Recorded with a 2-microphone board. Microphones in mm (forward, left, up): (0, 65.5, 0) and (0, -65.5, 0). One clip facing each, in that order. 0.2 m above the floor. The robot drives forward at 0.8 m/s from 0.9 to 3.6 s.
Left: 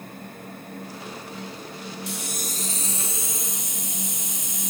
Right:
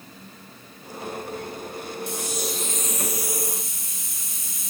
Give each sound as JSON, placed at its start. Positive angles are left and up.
{"t": 2.1, "sound": "a hiss", "side_deg": 70, "distance_m": 0.5}